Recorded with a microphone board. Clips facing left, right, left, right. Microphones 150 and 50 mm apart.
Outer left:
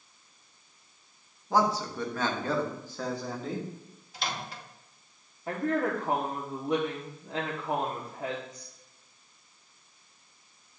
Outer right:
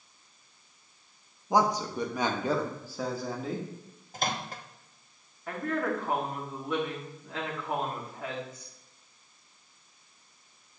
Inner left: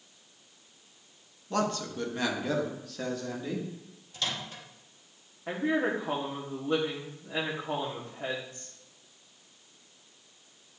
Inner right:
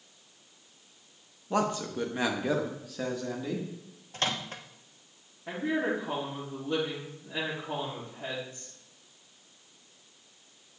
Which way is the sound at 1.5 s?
15° right (ahead or behind).